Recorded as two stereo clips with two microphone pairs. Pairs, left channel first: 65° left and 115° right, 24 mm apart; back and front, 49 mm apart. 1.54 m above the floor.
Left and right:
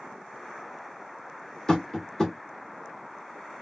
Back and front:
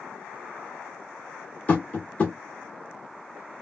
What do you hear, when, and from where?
1.7 s tapping: 135° left, 1.8 m